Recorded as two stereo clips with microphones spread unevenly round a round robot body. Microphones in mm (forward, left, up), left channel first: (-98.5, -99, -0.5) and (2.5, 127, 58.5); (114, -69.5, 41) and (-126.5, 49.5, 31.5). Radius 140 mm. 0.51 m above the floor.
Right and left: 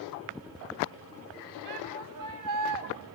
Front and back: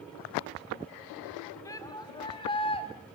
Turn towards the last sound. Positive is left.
turn(degrees=45)